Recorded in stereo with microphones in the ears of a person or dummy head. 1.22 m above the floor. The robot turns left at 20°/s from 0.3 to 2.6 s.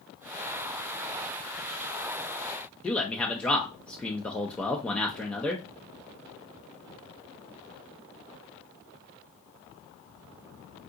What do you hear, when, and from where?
2.8 s a man speaking: 10° left (ahead or behind), 0.5 m